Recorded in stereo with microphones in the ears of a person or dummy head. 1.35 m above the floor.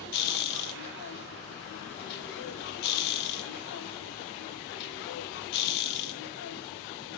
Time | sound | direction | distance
0.0 | a machine running | 55° left (ahead or behind) | 1.1 m